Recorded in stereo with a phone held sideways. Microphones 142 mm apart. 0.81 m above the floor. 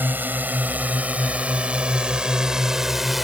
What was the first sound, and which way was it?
A drone, 15° right (ahead or behind).